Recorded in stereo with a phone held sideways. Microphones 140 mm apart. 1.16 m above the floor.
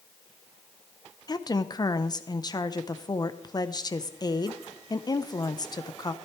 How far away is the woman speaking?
About 0.7 m.